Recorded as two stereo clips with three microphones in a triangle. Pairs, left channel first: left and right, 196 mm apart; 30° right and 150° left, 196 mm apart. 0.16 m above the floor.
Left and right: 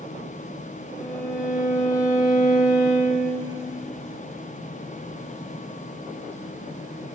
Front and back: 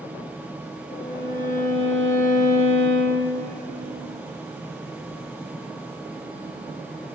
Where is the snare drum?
I don't hear a snare drum.